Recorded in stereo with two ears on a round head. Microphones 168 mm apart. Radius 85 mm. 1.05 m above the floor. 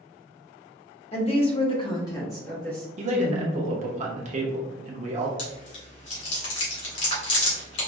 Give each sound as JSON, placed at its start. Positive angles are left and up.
{"t": 1.1, "sound": "a woman speaking", "side_deg": 35, "distance_m": 0.8}
{"t": 3.0, "sound": "a man speaking", "side_deg": -40, "distance_m": 0.7}
{"t": 5.4, "sound": "chewing", "side_deg": 65, "distance_m": 1.6}